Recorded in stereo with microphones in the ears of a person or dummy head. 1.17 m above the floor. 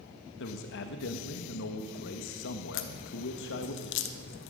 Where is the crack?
45° left (ahead or behind), 0.7 m.